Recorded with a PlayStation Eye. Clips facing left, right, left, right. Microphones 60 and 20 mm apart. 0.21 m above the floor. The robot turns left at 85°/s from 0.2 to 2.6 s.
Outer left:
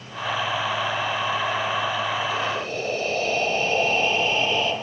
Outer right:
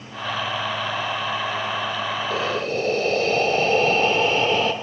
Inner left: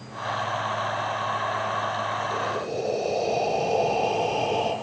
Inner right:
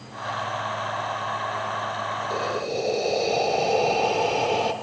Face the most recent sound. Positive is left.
turn(degrees=-60)  # may be behind; listen again after turning